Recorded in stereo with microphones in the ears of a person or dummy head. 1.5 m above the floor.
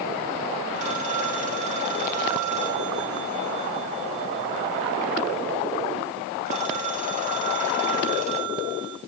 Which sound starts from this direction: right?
A phone ringing, at 0.8 s.